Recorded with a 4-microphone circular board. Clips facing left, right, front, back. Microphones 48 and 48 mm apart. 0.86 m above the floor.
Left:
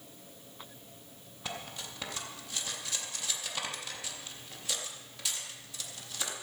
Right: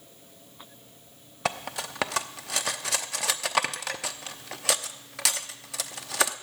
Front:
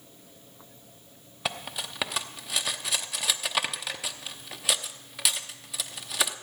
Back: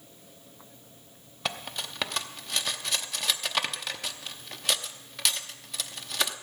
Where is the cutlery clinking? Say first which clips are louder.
Right 10 dB, front 1 dB; 85° right, 0.7 m.